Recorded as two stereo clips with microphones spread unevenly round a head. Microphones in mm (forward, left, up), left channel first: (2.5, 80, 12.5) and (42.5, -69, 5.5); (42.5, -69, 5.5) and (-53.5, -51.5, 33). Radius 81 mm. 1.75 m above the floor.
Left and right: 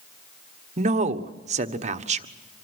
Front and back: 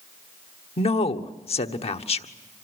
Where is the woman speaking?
30° right, 1.3 m.